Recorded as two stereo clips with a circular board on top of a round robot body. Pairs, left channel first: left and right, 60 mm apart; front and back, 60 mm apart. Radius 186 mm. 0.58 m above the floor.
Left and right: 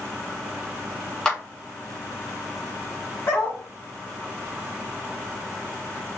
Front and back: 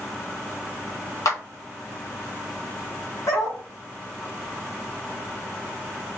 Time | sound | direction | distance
1.2 | a clap | 15° left | 2 m
3.3 | a dog barking | 30° left | 1.5 m